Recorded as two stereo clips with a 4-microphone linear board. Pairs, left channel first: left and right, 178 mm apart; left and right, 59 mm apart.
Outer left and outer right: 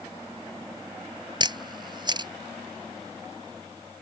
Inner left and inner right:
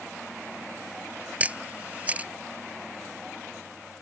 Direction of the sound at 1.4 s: 25° right (ahead or behind).